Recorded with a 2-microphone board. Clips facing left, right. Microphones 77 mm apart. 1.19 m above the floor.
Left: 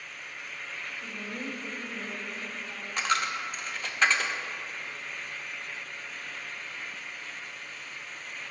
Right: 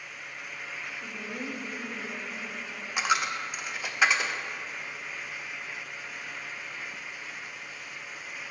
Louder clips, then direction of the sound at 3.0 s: Right 1 dB; 10° right (ahead or behind).